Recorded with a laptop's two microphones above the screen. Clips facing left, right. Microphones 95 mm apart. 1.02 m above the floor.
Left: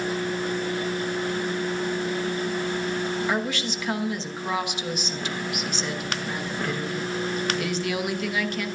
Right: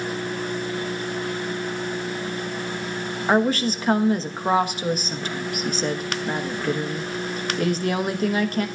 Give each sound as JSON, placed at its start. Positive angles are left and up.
{"t": 3.3, "sound": "a woman speaking", "side_deg": -40, "distance_m": 1.0}